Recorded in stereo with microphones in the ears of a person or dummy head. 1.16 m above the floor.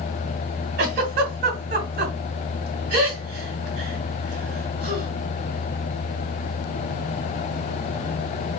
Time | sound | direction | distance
0.8 | a giggle | 45° right (ahead or behind) | 1.2 m